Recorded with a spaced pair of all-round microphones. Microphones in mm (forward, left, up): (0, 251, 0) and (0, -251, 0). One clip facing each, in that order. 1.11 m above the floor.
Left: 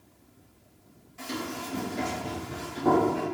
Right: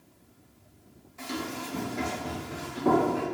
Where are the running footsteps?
35° left (ahead or behind), 1.3 m; by 3.2 s 25° left (ahead or behind), 2 m.